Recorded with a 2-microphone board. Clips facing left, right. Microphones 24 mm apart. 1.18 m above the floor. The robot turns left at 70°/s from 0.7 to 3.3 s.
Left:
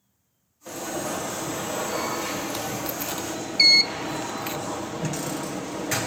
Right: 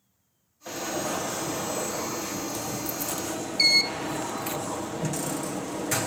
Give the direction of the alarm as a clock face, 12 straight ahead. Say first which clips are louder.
Even; 5 o'clock.